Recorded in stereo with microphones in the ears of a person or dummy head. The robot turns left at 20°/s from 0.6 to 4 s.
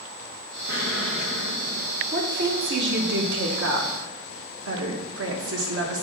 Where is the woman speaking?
65° right, 1.2 m; by 6.0 s 100° right, 1.2 m.